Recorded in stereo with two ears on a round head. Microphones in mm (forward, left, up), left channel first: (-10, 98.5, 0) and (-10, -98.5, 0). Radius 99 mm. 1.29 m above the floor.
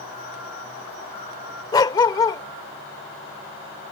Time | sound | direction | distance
1.7 | a dog barking | 20° left (ahead or behind) | ?